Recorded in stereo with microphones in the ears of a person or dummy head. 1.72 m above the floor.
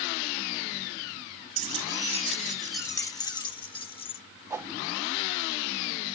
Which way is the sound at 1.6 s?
40° right (ahead or behind).